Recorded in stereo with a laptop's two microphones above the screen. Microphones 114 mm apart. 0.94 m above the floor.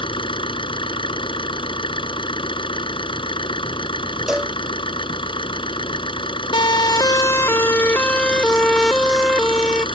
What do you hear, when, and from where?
0.0 s an engine running: 50° left (ahead or behind)
4.3 s a cowbell: 5° right (ahead or behind)
6.5 s a siren: 45° left (ahead or behind); by 9.8 s 5° right (ahead or behind)